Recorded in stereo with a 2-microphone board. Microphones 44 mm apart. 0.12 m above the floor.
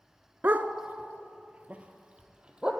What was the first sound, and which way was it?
A dog barking, 40° right (ahead or behind).